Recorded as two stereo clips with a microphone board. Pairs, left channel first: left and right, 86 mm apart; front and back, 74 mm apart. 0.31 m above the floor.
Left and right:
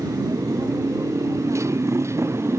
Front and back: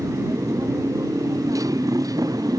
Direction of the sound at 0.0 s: 140° right.